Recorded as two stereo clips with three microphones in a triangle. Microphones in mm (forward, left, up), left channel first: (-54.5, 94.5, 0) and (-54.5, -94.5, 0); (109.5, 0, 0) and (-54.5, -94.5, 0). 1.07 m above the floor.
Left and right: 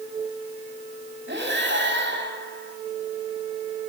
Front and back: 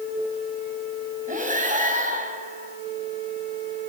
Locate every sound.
1.3 s breathing: 105° right, 2 m